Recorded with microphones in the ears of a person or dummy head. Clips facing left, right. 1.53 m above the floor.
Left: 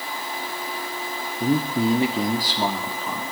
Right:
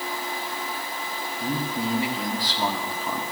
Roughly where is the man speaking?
Left.